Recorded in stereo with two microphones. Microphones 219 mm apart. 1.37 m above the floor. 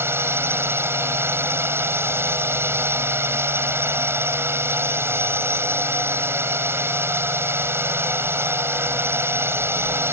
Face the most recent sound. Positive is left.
turn(degrees=-10)  # may be behind; listen again after turning